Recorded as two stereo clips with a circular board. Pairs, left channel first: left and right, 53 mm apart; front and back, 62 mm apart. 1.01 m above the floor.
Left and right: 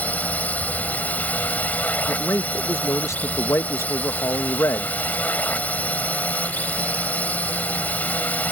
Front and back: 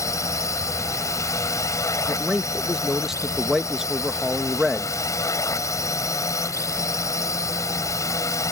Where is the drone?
30° left.